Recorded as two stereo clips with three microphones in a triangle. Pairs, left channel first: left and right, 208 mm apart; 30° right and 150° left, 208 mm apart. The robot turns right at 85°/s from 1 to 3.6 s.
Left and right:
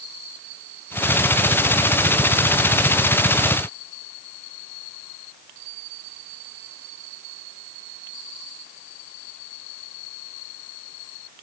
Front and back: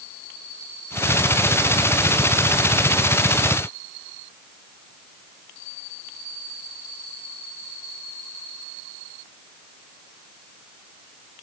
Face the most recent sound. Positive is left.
No sound to turn to.